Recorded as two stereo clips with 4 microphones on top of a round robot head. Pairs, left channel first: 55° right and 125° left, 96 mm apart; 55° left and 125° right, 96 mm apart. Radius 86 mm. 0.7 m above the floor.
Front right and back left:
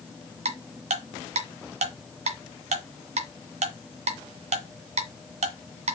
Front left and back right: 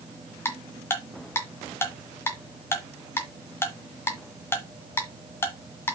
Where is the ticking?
120° left, 1.7 m.